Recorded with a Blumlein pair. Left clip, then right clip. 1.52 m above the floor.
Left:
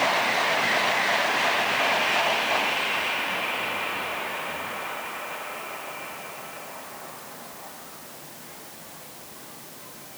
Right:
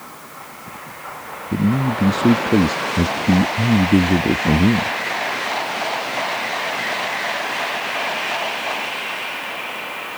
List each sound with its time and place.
1.5 s a man speaking: 45° right